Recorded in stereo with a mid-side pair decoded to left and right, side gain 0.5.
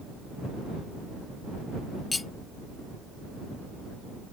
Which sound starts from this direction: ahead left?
Cutlery clinking, at 2.1 s.